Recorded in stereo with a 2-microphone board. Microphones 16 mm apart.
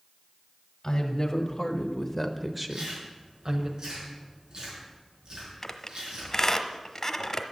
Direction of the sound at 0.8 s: 45° left (ahead or behind).